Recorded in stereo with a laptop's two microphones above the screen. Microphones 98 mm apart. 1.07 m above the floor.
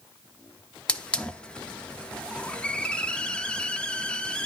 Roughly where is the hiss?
Centre.